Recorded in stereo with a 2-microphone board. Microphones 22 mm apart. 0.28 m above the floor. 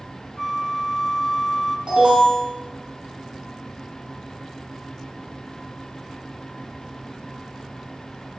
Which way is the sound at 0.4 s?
15° left (ahead or behind).